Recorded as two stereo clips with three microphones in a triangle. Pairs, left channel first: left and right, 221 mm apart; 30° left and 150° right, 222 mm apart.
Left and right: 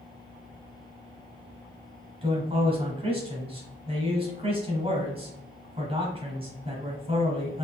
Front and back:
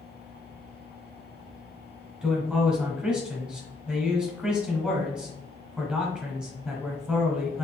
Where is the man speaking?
70° right, 1.6 m.